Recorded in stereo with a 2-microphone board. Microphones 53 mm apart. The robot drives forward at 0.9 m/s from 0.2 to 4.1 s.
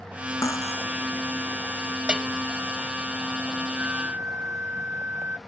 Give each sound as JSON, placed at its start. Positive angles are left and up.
{"t": 0.4, "sound": "cutlery clinking", "side_deg": 70}
{"t": 2.1, "sound": "a bell", "side_deg": -20}
{"t": 3.8, "sound": "a flute", "side_deg": -35}